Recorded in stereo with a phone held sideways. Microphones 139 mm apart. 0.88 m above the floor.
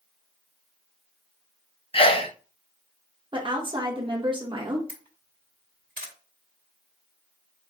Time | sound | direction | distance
1.9 | a sneeze | 40° left (ahead or behind) | 0.6 m
3.3 | a woman speaking | 35° right (ahead or behind) | 1.3 m
4.9 | a camera shutter | 85° right | 1.4 m